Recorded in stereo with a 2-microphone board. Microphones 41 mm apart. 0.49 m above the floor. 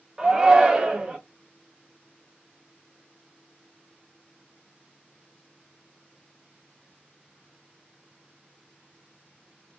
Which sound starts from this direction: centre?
A shout, at 0.2 s.